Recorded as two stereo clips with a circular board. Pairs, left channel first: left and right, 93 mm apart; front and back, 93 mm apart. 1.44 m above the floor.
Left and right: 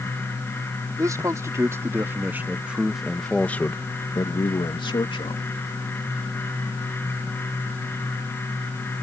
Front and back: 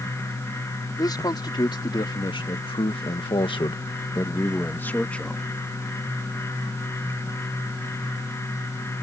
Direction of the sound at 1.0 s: 40° right.